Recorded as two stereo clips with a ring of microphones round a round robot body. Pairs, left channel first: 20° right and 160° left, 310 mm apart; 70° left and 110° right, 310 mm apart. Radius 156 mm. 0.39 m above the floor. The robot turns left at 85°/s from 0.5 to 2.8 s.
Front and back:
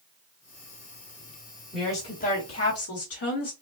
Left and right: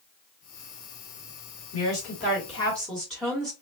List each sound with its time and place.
1.7 s a woman speaking: 70° left, 1.7 m; by 3.5 s 20° right, 1.7 m